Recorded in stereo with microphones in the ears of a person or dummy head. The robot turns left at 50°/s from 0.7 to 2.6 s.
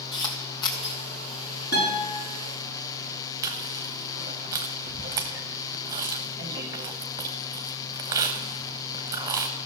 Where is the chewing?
25° right (ahead or behind), 1.0 m.